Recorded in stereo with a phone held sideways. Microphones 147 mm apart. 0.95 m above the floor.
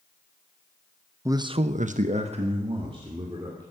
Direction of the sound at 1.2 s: 20° right (ahead or behind).